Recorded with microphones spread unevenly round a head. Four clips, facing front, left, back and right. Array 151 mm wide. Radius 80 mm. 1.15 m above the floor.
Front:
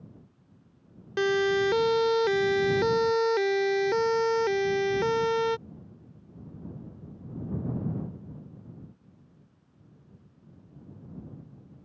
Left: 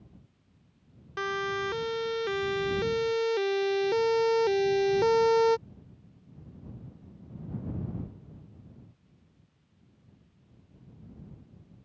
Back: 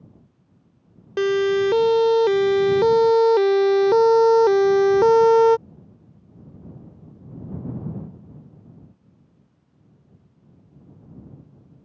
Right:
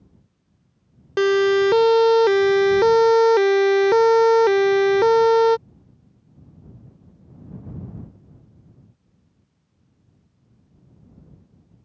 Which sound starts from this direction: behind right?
A siren, at 1.2 s.